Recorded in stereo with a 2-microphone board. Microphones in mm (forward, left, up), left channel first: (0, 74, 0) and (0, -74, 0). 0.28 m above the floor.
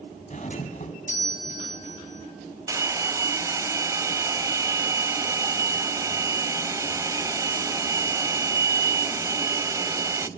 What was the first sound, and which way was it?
A doorbell, 55° left (ahead or behind).